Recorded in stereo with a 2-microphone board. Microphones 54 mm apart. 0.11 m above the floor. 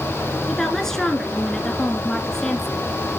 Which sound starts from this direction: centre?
A woman speaking, at 0.5 s.